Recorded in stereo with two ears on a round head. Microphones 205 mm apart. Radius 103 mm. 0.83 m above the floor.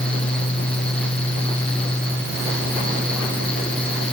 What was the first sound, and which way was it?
Only background noise.